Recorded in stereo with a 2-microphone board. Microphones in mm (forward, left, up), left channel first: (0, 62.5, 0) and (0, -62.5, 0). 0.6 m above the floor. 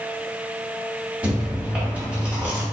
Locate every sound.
1.2 s chewing: 10° right (ahead or behind), 1.3 m